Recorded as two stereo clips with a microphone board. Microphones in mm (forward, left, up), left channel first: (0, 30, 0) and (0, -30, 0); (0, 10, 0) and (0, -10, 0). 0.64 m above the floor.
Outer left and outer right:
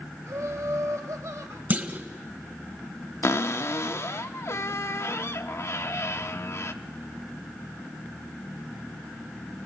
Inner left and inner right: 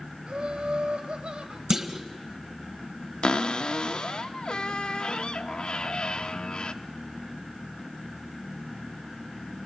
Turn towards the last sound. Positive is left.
turn(degrees=50)  # may be behind; listen again after turning